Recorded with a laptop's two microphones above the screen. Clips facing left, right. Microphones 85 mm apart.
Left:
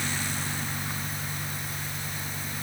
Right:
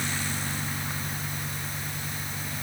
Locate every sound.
Only background noise.